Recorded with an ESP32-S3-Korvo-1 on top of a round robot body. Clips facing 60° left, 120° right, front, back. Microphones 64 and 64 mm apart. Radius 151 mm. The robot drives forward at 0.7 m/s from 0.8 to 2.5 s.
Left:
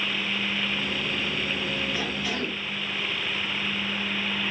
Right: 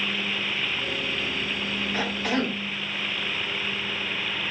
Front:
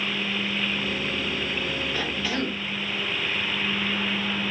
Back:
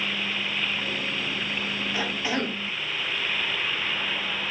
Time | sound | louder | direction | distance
1.9 | a cough | right 3 dB, back 3 dB | 105° right | 1.5 m